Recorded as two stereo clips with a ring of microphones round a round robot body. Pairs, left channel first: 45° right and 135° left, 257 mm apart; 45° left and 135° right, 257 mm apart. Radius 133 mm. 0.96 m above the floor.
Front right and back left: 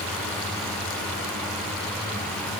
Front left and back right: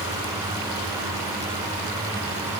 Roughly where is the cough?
I don't hear a cough.